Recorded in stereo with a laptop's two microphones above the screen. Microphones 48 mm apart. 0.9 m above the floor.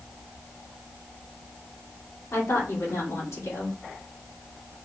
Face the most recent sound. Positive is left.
turn(degrees=75)  # may be behind; listen again after turning